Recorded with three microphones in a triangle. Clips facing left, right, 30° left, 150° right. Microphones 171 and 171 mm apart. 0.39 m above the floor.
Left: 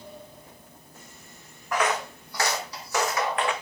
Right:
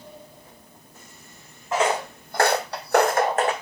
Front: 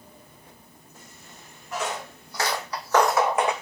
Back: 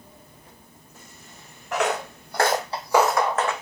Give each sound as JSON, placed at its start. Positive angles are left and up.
{"t": 1.7, "sound": "footsteps", "azimuth_deg": -155, "distance_m": 1.4}